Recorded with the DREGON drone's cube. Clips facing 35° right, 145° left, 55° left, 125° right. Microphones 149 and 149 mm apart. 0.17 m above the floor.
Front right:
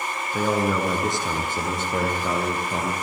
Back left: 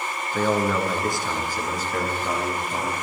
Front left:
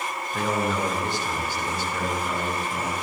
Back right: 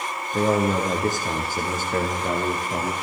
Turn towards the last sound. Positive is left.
turn(degrees=-90)